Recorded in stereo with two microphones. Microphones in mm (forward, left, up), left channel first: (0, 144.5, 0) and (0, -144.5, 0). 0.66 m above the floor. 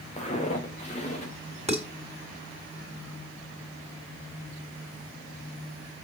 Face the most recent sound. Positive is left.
turn(degrees=-20)  # may be behind; listen again after turning